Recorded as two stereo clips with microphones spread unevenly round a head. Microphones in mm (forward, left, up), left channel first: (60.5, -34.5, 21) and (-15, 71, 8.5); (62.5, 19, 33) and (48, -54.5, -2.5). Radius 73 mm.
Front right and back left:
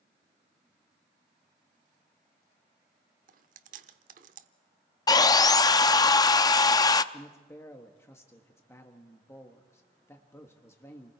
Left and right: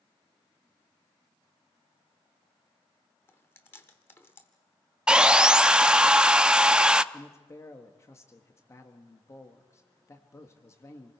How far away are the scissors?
No scissors in this recording.